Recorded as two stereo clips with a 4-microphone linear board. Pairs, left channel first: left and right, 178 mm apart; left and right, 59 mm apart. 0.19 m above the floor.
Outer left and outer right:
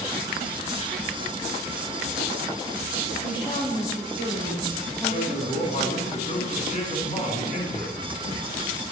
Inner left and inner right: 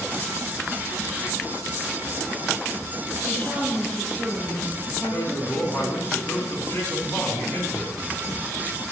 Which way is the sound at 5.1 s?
45° left (ahead or behind).